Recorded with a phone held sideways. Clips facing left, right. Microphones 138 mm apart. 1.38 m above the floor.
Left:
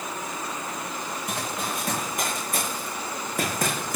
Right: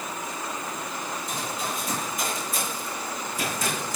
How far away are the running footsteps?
About 9 m.